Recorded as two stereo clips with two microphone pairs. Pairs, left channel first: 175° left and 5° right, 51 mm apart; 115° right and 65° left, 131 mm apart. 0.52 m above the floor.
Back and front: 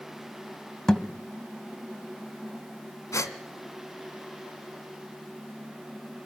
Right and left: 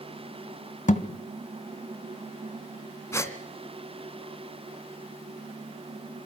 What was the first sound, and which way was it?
A thud, 110° right.